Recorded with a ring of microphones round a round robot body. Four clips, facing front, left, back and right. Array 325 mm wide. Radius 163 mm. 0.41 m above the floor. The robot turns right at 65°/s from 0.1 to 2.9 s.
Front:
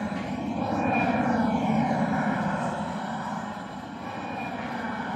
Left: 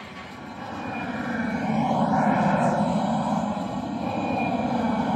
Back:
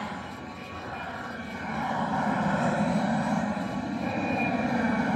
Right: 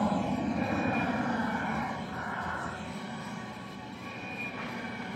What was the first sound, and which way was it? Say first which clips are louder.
An aircraft: right 10 dB, front 6 dB; 60° right.